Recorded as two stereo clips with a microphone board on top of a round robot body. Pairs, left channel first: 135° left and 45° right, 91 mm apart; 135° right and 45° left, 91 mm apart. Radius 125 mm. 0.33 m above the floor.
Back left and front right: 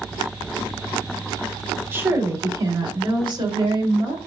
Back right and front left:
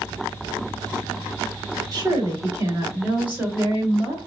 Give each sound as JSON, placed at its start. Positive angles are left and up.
{"t": 1.9, "sound": "a woman speaking", "azimuth_deg": 10, "distance_m": 2.5}